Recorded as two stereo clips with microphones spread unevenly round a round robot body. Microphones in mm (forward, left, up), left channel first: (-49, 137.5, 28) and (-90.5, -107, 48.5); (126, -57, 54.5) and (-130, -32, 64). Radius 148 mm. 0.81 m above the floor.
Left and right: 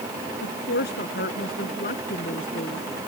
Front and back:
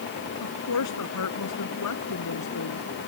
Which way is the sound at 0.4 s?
25° left.